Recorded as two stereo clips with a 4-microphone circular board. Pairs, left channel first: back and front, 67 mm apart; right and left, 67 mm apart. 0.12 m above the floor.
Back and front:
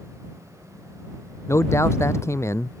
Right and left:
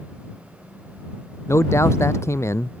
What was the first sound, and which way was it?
A man speaking, 135° right.